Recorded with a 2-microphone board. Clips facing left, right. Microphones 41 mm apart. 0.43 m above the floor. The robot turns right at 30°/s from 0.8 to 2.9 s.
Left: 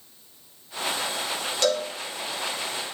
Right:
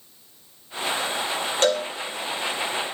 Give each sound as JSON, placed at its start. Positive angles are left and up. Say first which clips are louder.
{"t": 1.6, "sound": "a cowbell", "louder": "right 2 dB", "side_deg": -45, "distance_m": 1.1}